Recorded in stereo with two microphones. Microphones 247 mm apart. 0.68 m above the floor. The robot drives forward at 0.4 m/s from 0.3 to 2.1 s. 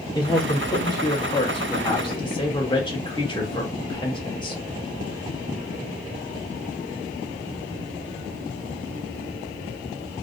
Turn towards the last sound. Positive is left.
turn(degrees=20)  # may be behind; listen again after turning